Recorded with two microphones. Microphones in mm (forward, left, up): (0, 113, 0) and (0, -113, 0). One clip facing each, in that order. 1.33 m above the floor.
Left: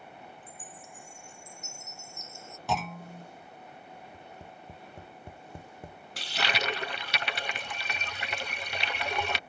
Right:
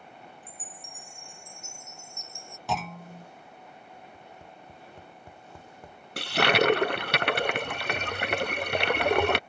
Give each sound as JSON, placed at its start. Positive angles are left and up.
{"t": 0.4, "sound": "a chime", "side_deg": 5}
{"t": 2.7, "sound": "a clunk", "side_deg": 0}
{"t": 4.1, "sound": "tapping", "side_deg": 20}
{"t": 6.2, "sound": "a toilet flushing", "side_deg": -60}